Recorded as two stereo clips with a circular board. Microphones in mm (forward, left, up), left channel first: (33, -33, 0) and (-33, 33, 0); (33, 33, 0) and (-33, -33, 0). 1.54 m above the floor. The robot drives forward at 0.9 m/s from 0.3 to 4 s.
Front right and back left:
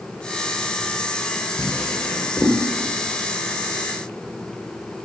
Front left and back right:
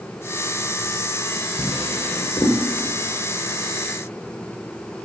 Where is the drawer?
15° left, 2 m; by 2.6 s 30° left, 1.5 m.